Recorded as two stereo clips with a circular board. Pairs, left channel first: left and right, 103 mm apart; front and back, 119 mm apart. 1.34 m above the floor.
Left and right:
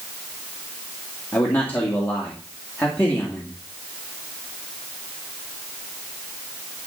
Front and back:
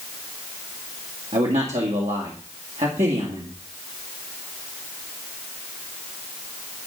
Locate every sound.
1.3 s a man speaking: 165° left, 2 m